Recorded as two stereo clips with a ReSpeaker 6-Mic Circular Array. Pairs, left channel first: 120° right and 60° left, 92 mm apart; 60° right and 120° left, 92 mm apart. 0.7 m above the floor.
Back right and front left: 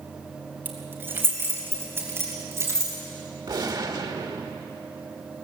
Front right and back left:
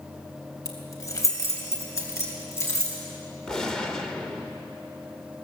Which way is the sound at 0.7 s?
5° right.